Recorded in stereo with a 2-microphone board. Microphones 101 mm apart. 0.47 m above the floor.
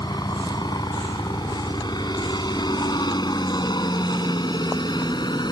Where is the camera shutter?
I don't hear a camera shutter.